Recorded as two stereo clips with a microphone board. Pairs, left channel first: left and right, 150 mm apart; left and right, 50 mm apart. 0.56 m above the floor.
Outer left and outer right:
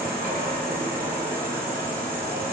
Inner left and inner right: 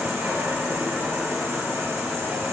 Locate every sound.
0.0 s an insect: 75° right (ahead or behind), 1.5 m